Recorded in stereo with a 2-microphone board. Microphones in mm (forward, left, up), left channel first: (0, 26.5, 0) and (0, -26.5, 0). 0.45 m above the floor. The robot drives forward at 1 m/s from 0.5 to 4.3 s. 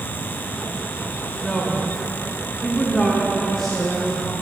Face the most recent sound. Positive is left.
turn(degrees=5)  # may be behind; listen again after turning